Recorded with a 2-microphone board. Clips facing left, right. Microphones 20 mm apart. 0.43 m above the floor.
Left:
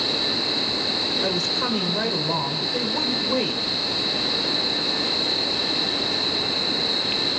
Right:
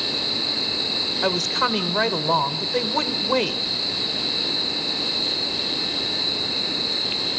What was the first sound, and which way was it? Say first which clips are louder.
A woman speaking: right 2 dB; 35° right (ahead or behind).